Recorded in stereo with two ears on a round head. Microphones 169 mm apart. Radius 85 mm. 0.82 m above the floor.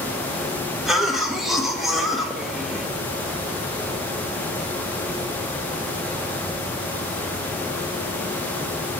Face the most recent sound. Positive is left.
turn(degrees=0)  # may be behind; listen again after turning